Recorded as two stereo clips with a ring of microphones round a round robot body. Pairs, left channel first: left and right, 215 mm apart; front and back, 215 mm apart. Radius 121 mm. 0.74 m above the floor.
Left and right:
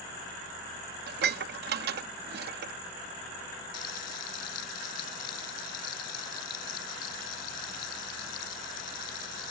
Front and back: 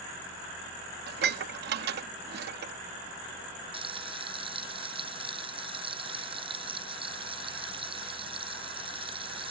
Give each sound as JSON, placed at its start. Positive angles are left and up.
{"t": 1.1, "sound": "dishes clattering", "azimuth_deg": -135}
{"t": 3.7, "sound": "frying", "azimuth_deg": 115}